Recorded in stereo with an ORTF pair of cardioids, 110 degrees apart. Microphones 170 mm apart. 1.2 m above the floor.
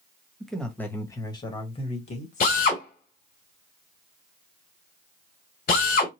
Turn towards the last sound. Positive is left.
turn(degrees=55)